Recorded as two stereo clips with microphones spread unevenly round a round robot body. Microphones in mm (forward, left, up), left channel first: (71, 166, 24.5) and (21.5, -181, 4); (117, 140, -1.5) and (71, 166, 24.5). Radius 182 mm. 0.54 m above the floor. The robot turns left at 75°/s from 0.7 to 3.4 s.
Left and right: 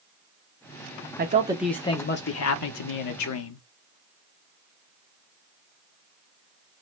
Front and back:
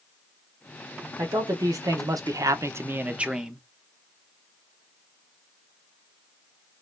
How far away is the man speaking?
About 0.9 m.